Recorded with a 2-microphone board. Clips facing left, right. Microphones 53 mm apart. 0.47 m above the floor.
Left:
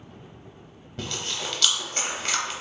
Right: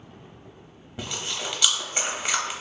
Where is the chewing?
10° right (ahead or behind), 0.5 m.